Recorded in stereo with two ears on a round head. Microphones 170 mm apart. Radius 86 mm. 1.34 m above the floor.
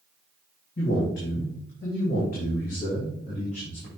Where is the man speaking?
65° left (ahead or behind), 2.5 m; by 3.9 s 35° left (ahead or behind), 3 m.